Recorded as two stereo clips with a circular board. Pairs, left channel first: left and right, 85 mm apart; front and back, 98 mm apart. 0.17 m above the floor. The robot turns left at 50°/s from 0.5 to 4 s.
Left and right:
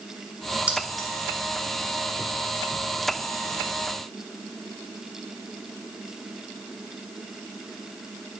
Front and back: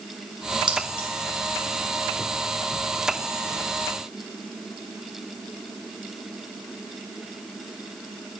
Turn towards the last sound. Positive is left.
turn(degrees=30)